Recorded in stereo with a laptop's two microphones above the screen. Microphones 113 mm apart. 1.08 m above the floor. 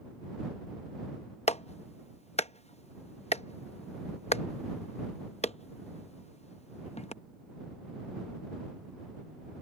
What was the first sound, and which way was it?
A clap, 70° left (ahead or behind).